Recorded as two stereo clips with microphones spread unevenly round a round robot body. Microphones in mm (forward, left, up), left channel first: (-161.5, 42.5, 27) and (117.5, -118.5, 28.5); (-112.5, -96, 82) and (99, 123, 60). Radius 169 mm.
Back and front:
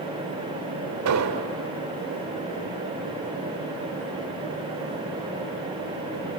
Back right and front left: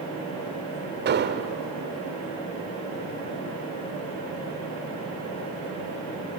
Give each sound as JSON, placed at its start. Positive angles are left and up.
{"t": 1.1, "sound": "an explosion", "azimuth_deg": 0, "distance_m": 1.2}